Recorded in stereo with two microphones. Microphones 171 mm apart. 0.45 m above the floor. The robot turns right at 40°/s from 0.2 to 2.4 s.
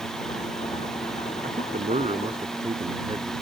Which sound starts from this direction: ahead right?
A man speaking, at 1.4 s.